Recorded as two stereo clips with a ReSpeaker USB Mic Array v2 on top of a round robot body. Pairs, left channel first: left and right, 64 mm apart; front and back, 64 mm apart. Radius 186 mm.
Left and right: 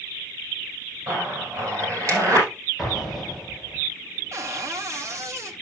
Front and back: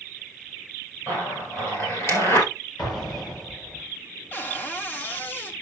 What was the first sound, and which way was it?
A zipper, 45° right.